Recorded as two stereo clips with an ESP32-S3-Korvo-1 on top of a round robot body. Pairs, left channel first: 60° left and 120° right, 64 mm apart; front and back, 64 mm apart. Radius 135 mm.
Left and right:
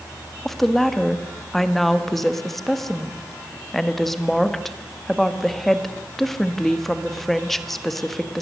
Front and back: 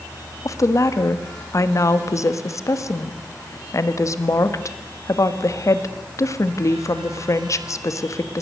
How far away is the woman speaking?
About 1.9 m.